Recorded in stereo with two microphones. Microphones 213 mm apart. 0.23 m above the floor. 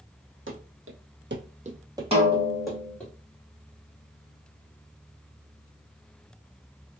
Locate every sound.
0.5 s running footsteps: 70° right (ahead or behind), 0.8 m; by 3.1 s 5° left (ahead or behind), 1.3 m
2.1 s a snare drum: 25° right (ahead or behind), 1.1 m